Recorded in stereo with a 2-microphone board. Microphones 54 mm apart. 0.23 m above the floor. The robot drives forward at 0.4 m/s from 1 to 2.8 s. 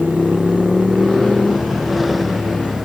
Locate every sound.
0.0 s a motorcycle: centre (ahead or behind)